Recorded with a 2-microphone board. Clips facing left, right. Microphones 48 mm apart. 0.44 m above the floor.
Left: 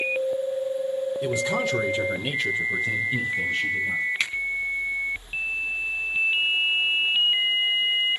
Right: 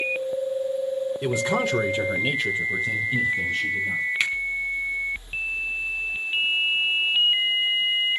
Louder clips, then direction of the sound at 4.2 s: Right 3 dB; 15° right (ahead or behind).